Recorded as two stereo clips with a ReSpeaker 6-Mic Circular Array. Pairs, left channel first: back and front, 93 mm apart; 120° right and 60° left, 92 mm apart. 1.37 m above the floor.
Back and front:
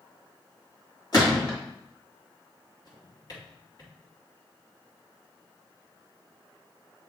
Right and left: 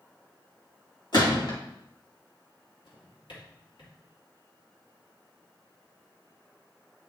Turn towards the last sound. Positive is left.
turn(degrees=-140)